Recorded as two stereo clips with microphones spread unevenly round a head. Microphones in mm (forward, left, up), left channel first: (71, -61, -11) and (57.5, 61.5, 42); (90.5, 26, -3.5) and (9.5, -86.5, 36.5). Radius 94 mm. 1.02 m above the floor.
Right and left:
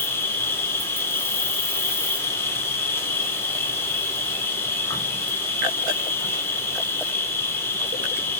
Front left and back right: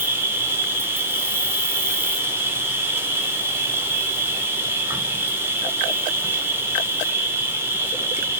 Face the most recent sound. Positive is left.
turn(degrees=-45)